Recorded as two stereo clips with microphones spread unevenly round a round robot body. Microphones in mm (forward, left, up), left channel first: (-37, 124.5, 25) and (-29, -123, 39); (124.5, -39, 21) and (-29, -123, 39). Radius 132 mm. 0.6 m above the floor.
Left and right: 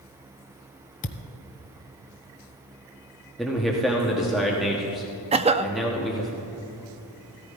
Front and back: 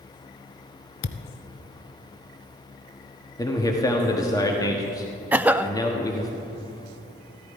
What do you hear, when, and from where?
1.0 s a thud: 30° left, 0.7 m
3.4 s a man speaking: 5° left, 1.3 m
5.3 s a cough: 70° right, 0.6 m